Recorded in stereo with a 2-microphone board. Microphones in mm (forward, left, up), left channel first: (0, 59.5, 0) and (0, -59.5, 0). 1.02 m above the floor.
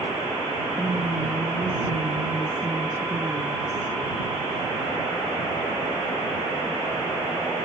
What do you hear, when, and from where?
0.8 s a woman speaking: 25° right (ahead or behind)